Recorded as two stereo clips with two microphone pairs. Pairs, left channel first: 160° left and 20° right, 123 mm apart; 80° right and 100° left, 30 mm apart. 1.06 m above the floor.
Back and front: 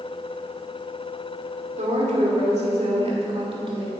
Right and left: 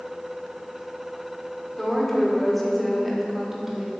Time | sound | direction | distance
1.8 | a woman speaking | 5° right | 2.5 m